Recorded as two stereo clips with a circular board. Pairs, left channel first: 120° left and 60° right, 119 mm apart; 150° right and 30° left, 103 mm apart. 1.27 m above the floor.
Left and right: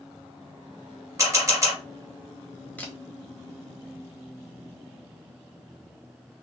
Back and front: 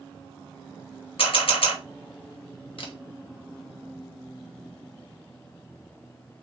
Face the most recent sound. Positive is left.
turn(degrees=-165)